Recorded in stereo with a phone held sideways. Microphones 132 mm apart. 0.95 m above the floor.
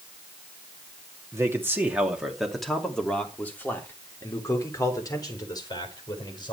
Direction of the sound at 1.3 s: 20° right (ahead or behind).